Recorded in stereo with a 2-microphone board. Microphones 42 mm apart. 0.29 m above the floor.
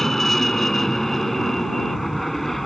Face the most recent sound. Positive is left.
turn(degrees=5)  # may be behind; listen again after turning